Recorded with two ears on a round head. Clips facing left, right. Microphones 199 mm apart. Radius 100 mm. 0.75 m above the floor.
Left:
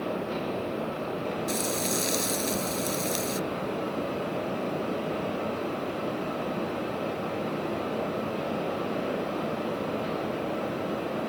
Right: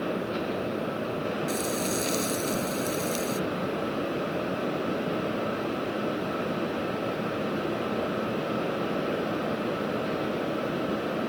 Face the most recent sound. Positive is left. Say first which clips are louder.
# right 1 dB
turn(degrees=20)  # may be behind; listen again after turning